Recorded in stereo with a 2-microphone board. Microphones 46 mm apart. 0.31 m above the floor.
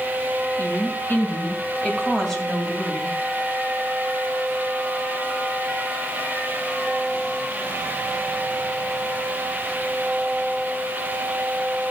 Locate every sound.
0.6 s a woman speaking: 55° left (ahead or behind), 3 m; by 3.1 s 10° right (ahead or behind), 2.5 m